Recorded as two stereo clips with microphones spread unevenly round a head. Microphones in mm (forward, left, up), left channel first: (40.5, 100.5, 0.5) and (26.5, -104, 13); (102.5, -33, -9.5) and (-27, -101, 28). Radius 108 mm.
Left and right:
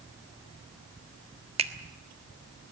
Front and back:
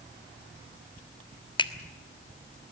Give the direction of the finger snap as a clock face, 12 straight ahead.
1 o'clock.